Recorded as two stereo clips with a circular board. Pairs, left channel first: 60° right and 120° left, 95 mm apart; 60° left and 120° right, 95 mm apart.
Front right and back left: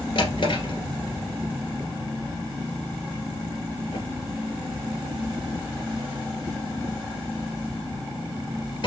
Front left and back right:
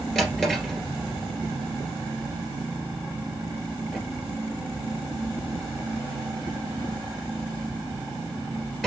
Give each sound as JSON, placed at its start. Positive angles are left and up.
{"t": 0.1, "sound": "a drawer", "azimuth_deg": -30, "distance_m": 2.5}